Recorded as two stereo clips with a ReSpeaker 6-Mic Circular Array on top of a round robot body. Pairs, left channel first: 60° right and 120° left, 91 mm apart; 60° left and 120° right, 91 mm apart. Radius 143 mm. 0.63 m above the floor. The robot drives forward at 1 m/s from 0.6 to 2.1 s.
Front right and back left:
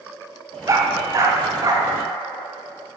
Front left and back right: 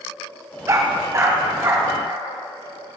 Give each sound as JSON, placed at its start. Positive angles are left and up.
{"t": 0.7, "sound": "a dog barking", "azimuth_deg": 180, "distance_m": 1.3}